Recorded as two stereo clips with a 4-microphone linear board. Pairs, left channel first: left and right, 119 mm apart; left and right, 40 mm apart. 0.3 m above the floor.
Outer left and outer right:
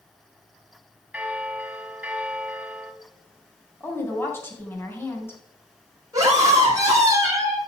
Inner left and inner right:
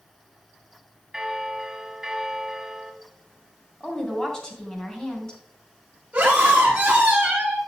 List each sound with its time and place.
1.1 s a bell: 10° right (ahead or behind), 1.4 m
3.8 s a woman speaking: 20° left (ahead or behind), 2.5 m
6.1 s a scream: 30° right (ahead or behind), 5.5 m